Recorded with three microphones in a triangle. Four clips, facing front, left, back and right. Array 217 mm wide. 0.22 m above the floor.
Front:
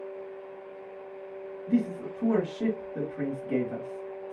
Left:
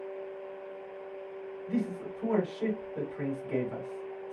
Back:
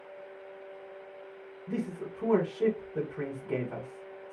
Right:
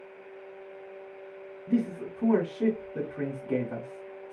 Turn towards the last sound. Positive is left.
turn(degrees=-115)